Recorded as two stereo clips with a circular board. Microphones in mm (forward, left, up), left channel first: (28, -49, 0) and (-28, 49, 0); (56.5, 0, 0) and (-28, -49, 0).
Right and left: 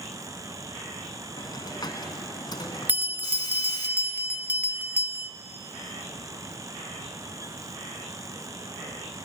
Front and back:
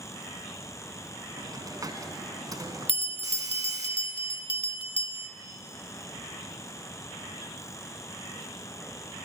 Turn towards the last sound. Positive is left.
turn(degrees=45)